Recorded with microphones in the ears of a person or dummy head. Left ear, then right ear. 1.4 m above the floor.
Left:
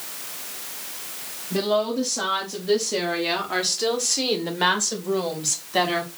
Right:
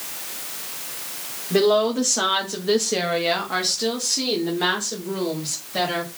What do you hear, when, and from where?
1.5 s a woman speaking: 60° right (ahead or behind), 1.0 m; by 6.1 s 45° left (ahead or behind), 1.9 m